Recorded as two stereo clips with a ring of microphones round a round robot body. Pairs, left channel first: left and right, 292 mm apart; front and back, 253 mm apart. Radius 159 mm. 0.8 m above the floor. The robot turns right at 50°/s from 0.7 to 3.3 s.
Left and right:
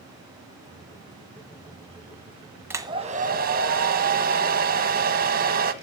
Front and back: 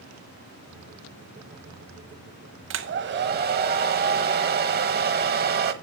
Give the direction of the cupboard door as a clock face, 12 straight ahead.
No cupboard door in this recording.